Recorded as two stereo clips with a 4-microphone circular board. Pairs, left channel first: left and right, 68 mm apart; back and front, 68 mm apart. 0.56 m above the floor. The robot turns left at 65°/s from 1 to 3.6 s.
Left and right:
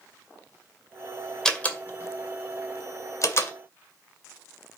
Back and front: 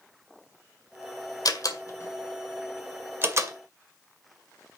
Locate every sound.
1.4 s a door slam: 170° left, 2.0 m; by 3.5 s 35° left, 2.0 m